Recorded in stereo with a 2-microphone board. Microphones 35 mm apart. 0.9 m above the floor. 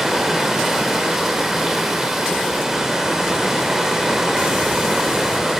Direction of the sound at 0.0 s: 10° right (ahead or behind).